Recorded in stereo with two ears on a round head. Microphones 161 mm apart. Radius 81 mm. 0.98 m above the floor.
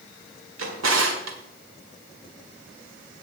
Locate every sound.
0.6 s a drawer: 85° right, 2 m